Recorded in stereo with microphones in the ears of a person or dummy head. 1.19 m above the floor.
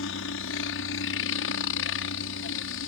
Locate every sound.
0.0 s a helicopter: 65° left (ahead or behind)